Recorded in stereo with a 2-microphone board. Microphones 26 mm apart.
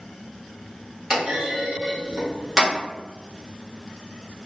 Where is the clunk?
30° right (ahead or behind), 1.5 m.